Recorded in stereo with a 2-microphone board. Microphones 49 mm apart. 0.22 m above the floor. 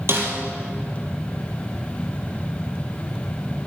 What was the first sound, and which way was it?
A snare drum, 60° right (ahead or behind).